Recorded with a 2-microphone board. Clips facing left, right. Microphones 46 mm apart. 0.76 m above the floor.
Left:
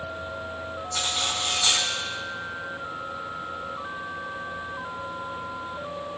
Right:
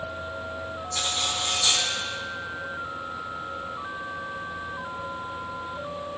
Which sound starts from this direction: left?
Cutlery clinking, at 0.9 s.